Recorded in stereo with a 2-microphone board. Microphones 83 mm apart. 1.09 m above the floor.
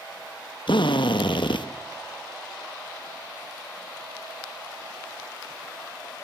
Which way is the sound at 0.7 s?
80° left.